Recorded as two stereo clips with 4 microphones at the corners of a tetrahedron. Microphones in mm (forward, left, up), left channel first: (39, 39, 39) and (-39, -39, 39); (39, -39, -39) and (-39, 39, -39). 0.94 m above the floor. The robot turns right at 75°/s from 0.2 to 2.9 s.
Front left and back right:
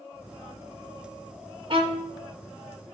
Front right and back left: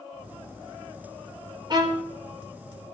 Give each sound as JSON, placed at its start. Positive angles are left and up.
{"t": 1.7, "sound": "a violin", "azimuth_deg": -175, "distance_m": 2.0}